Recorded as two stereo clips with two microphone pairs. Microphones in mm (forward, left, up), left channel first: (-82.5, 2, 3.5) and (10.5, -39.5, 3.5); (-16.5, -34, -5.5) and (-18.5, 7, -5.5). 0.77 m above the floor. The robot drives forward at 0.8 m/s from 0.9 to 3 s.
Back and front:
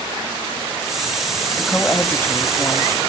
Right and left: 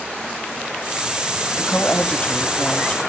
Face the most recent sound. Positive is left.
turn(degrees=-155)